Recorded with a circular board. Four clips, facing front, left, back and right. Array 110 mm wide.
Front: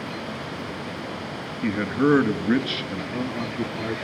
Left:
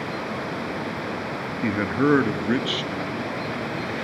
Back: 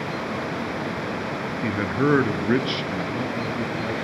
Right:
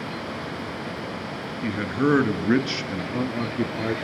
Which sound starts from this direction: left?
A man speaking, at 1.6 s.